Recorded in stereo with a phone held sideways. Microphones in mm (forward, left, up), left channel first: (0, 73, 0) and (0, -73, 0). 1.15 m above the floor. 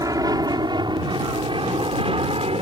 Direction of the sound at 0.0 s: 25° right (ahead or behind).